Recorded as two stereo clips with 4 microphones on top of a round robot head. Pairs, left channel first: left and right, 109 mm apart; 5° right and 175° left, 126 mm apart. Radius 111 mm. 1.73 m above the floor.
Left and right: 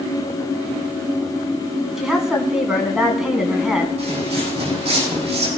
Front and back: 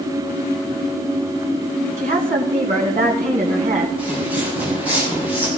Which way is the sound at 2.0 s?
175° right.